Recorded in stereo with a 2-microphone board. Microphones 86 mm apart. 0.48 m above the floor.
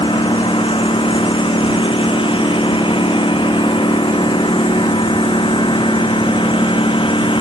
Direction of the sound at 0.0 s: 80° left.